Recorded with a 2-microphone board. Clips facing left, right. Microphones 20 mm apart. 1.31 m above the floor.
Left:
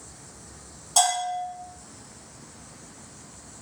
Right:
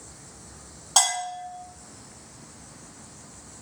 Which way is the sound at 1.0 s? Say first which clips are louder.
Left 1 dB; 45° right (ahead or behind).